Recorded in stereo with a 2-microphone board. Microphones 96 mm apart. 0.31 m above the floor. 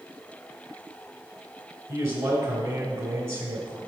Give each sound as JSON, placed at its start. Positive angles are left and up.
{"t": 1.9, "sound": "a man speaking", "side_deg": -55, "distance_m": 1.8}